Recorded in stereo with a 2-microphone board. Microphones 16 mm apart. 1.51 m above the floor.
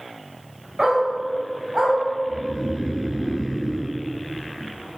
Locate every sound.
0.8 s a dog barking: 80° right, 4 m; by 2.0 s 75° right (ahead or behind), 4.5 m
2.3 s snoring: 60° right (ahead or behind), 1.5 m